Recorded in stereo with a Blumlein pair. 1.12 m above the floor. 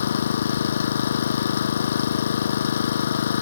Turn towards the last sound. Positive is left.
turn(degrees=65)